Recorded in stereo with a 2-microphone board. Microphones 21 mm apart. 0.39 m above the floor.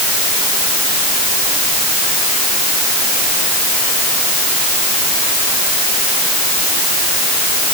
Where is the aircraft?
I don't hear an aircraft.